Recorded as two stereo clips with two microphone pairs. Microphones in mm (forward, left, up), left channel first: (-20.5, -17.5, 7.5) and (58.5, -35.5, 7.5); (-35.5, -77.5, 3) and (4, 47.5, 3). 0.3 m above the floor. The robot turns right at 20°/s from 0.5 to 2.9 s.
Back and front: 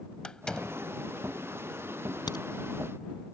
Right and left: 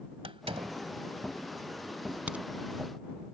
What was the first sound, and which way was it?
A door slam, 90° left.